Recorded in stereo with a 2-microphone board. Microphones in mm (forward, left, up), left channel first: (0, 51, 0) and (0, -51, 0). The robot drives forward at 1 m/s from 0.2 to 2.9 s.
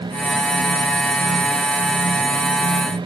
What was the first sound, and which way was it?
Only background noise.